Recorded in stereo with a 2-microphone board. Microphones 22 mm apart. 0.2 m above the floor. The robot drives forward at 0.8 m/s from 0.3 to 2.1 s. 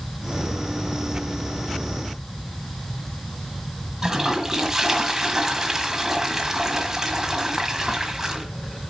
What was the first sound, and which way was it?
A toilet flushing, 20° right (ahead or behind).